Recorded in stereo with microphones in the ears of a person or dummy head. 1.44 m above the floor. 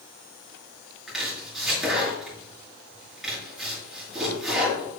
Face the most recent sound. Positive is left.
turn(degrees=-5)  # may be behind; listen again after turning